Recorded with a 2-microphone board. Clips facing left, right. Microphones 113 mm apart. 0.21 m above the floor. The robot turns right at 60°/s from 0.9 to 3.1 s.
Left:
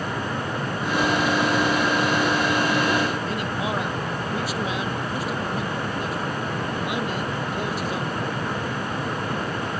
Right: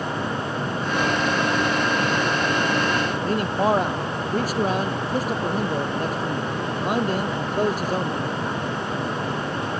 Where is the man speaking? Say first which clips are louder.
Right 6 dB; 45° right (ahead or behind).